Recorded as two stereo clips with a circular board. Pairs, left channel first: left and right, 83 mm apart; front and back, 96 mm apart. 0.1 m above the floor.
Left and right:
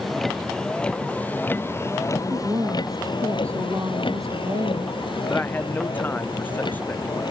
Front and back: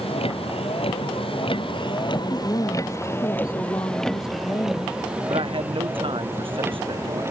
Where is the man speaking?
160° left.